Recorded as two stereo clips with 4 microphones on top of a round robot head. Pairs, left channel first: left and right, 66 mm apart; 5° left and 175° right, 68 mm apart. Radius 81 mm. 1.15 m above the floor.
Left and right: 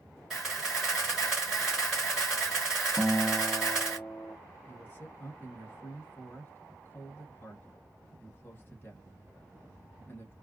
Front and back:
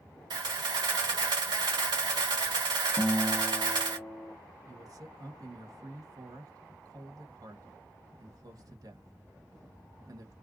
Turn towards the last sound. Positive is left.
turn(degrees=150)